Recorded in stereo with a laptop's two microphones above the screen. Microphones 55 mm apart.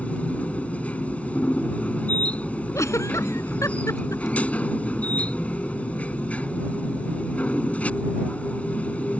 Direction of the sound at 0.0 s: 25° left (ahead or behind).